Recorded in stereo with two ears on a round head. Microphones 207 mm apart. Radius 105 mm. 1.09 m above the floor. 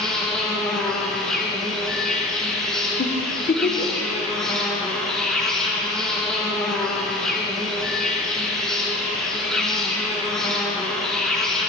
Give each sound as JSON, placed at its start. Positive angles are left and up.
{"t": 0.0, "sound": "an insect", "side_deg": 0, "distance_m": 0.7}
{"t": 3.0, "sound": "a giggle", "side_deg": 30, "distance_m": 0.7}